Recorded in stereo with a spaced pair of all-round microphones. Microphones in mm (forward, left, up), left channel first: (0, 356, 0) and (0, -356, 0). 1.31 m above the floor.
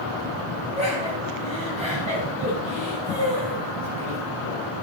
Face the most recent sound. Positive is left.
turn(degrees=-10)  # may be behind; listen again after turning